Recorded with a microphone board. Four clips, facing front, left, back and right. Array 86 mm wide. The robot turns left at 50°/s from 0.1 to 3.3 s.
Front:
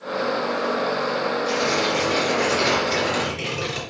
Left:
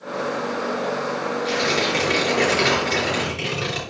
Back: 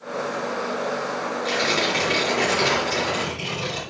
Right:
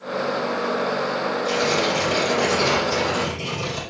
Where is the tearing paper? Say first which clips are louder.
Right 1 dB, front 2 dB; 160° left, 3.5 m; by 3.8 s 65° left, 3.5 m.